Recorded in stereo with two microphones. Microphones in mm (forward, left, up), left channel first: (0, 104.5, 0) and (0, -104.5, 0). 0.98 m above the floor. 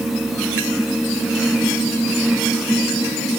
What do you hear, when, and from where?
Only background noise.